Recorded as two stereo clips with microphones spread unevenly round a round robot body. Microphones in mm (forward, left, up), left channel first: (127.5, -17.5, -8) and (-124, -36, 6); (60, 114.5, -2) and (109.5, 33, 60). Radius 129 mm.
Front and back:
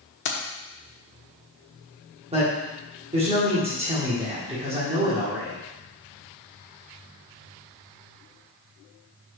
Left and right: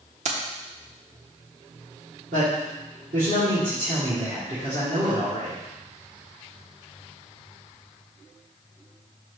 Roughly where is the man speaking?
Right.